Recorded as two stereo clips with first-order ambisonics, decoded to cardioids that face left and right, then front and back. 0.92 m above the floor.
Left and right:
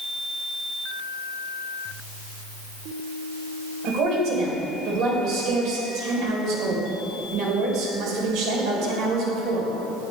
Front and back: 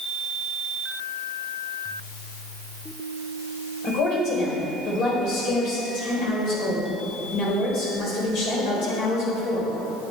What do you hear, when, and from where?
3.8 s a woman speaking: 45° right, 3.5 m